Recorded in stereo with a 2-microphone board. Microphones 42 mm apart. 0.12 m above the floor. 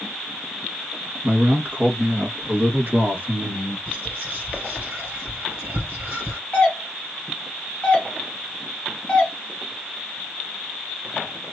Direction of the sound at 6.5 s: 20° left (ahead or behind).